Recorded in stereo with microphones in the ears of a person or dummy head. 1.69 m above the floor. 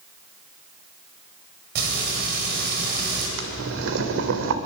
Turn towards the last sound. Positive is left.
turn(degrees=-65)  # may be behind; listen again after turning